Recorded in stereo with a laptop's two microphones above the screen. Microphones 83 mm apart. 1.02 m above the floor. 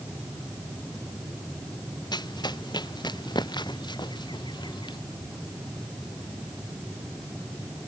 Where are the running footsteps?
60° left (ahead or behind); by 5.0 s 65° left (ahead or behind).